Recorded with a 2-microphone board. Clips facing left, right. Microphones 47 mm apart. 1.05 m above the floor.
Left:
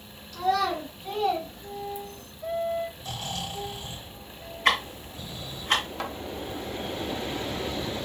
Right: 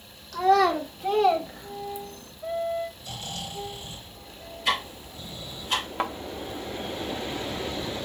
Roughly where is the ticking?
Left.